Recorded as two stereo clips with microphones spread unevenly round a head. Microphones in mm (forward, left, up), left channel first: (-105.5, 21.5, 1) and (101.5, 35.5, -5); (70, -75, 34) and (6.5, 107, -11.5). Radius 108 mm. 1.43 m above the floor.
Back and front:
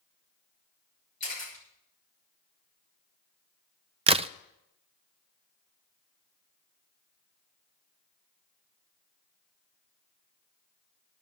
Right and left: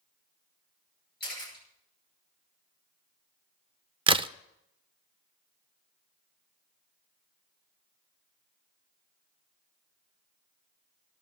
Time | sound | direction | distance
1.2 | a camera shutter | 115° right | 9.5 m
4.1 | a crack | 60° left | 0.5 m